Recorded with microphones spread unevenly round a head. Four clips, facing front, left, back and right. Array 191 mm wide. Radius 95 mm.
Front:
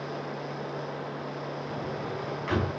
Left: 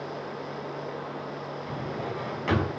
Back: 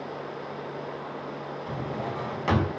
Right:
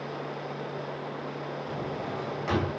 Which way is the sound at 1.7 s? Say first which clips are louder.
Left 2 dB, back 5 dB; 175° left.